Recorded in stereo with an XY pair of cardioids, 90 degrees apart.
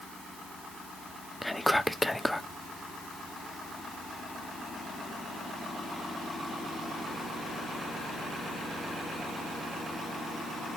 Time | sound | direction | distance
1.4 | whispering | 10° left | 0.7 m